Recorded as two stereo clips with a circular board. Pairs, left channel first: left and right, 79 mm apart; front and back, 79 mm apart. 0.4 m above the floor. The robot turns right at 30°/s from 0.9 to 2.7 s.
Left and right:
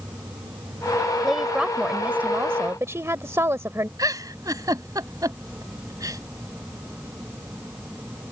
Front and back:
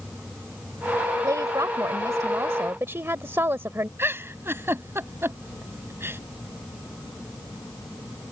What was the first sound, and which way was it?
An insect, 80° right.